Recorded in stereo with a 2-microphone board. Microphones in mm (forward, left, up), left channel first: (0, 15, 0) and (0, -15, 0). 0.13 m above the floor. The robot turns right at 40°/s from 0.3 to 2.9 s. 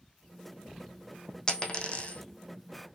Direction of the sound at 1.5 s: 25° left (ahead or behind).